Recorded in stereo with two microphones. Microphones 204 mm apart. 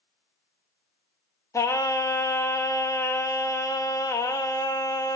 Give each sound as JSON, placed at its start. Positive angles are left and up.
{"t": 1.5, "sound": "singing", "side_deg": 15, "distance_m": 0.5}